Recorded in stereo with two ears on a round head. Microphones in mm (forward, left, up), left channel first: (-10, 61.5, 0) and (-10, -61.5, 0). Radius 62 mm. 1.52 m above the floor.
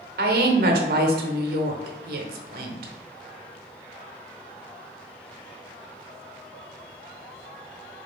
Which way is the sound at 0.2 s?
80° right.